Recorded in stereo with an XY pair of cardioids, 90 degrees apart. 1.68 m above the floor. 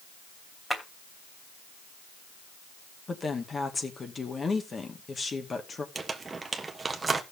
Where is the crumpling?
30° right, 1.3 m.